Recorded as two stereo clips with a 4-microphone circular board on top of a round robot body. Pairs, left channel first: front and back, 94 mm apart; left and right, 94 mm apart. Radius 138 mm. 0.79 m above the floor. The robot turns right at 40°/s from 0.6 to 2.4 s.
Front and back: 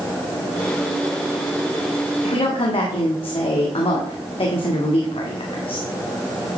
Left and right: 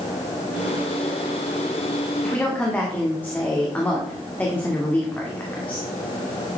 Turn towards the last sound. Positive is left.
turn(degrees=20)